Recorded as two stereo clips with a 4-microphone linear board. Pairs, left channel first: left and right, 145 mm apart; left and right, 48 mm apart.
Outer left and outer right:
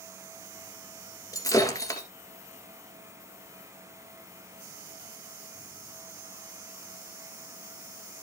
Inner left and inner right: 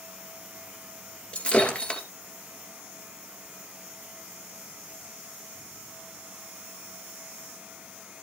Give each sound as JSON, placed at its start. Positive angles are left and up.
{"t": 1.3, "sound": "breaking glass", "side_deg": 25, "distance_m": 1.9}